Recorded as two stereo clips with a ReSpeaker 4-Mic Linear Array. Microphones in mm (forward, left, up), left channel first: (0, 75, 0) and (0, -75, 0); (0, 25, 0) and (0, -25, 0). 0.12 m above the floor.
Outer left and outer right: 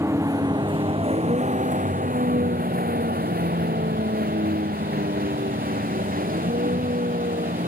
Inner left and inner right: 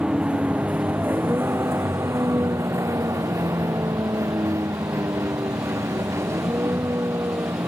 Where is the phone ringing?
No phone ringing in this recording.